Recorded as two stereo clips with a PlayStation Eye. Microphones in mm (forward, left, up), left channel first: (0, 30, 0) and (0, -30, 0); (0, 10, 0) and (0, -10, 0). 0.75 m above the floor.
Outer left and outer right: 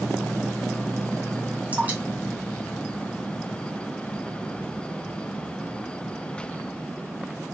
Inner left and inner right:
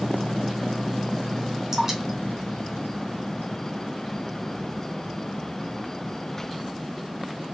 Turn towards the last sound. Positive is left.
turn(degrees=-25)  # may be behind; listen again after turning